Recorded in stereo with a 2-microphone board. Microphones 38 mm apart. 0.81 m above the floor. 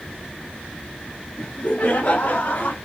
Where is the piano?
No piano in this recording.